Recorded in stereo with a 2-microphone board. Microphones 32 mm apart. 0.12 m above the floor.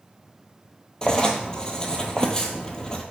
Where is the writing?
25° left (ahead or behind), 0.7 m.